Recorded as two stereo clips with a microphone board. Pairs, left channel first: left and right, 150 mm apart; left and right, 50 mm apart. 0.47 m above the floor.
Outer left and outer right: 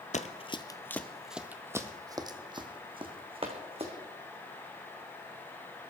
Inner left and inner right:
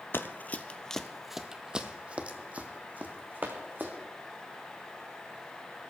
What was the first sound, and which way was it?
Running footsteps, 50° left (ahead or behind).